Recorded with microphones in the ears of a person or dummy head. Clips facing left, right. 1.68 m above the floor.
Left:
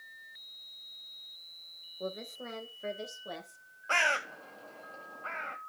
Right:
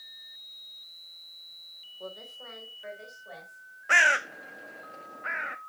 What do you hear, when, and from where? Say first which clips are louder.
2.0 s a woman speaking: left 4 dB; 30° left (ahead or behind), 1.8 m; by 3.6 s 60° left (ahead or behind), 3 m
3.9 s a bird: right 3 dB; 15° right (ahead or behind), 1.0 m